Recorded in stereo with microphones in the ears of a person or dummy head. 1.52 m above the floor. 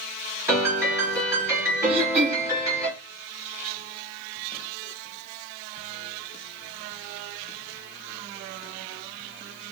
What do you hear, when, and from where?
0.5 s a piano: 10° right (ahead or behind), 4 m
1.9 s throat clearing: 30° right (ahead or behind), 0.7 m